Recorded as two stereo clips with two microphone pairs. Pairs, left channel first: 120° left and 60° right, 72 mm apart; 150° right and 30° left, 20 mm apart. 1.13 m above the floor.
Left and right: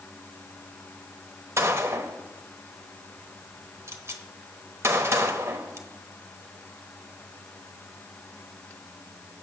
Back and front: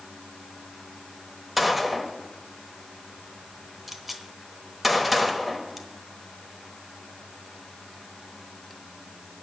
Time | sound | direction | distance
1.6 | a gunshot | 40° right | 1.0 m